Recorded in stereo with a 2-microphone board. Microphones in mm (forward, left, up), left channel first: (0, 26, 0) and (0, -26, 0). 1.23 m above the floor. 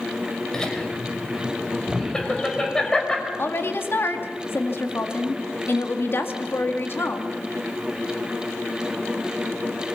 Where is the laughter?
15° left (ahead or behind), 4.5 m.